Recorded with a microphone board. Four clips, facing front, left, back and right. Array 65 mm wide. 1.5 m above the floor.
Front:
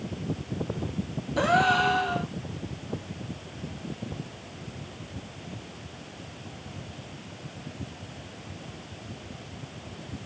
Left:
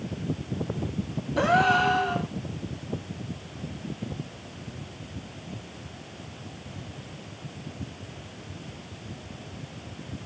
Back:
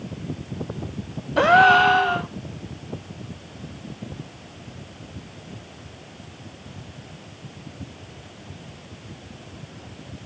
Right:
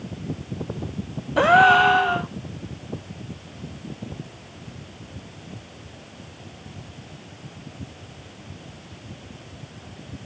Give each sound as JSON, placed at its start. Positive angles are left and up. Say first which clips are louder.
{"t": 1.4, "sound": "a gasp", "louder": "right 7 dB, back 8 dB", "azimuth_deg": -130, "distance_m": 1.1}